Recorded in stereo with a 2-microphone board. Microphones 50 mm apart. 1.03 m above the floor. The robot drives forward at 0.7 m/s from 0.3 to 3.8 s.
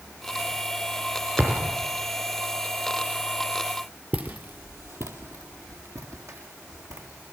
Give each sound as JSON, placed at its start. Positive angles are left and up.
{"t": 1.4, "sound": "a thud", "side_deg": -25, "distance_m": 3.5}
{"t": 4.1, "sound": "footsteps", "side_deg": -35, "distance_m": 1.5}